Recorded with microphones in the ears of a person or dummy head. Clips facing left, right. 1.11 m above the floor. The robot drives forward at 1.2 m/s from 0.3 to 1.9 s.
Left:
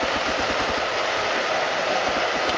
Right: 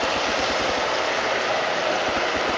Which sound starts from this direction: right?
Running water, at 0.0 s.